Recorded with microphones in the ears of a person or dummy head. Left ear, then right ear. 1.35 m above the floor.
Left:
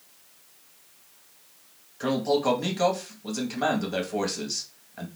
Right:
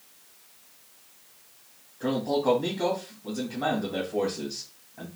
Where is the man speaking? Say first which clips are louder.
Left 2 dB; 55° left (ahead or behind), 2 m.